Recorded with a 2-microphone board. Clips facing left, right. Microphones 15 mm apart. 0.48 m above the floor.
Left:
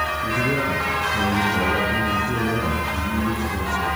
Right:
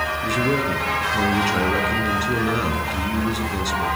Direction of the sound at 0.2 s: 80° right.